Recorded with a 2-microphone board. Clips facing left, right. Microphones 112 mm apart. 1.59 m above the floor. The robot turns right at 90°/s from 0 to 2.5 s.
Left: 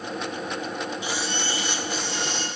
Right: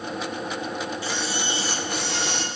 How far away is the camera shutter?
About 3 m.